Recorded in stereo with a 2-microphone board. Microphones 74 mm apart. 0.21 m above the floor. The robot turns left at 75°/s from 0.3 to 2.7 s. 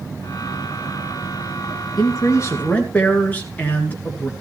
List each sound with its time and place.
2.0 s a man speaking: 80° left, 2.5 m; by 4.3 s 25° left, 2.5 m